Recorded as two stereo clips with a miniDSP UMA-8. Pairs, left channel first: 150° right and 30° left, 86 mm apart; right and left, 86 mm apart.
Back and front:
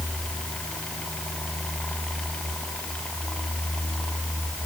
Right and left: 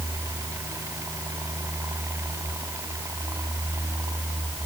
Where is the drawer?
No drawer in this recording.